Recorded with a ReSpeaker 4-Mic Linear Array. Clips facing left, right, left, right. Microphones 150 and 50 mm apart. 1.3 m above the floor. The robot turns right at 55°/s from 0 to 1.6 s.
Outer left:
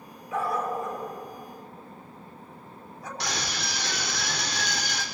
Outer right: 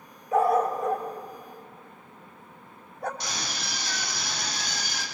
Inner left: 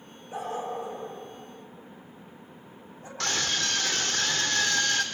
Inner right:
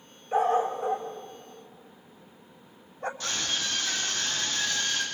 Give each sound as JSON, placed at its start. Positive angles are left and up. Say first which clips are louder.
{"t": 0.3, "sound": "a dog barking", "louder": "outer right 6 dB, inner right 8 dB", "side_deg": -40, "distance_m": 3.0}
{"t": 3.2, "sound": "a scream", "louder": "outer left 3 dB, inner left 6 dB", "side_deg": 90, "distance_m": 4.0}